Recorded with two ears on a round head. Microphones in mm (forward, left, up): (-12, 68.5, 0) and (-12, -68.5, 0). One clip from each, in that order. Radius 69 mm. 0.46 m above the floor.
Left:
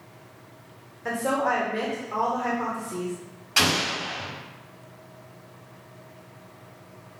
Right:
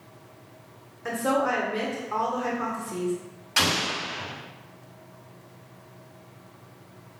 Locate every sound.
1.1 s a woman speaking: 15° right (ahead or behind), 0.8 m
3.6 s an explosion: centre (ahead or behind), 1.4 m